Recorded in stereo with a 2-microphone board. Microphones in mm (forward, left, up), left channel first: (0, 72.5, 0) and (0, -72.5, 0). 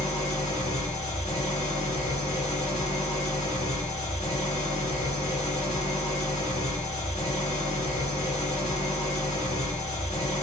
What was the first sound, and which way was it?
An engine running, 55° left (ahead or behind).